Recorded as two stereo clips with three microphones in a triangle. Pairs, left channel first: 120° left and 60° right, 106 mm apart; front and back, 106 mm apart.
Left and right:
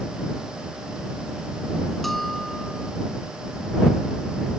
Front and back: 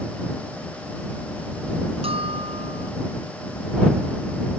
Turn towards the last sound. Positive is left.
turn(degrees=-150)